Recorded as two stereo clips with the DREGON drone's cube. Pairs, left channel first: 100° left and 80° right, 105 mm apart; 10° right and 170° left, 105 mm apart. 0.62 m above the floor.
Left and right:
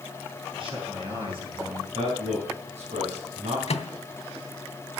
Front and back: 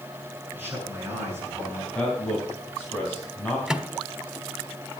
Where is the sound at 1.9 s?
90° right, 4.5 m.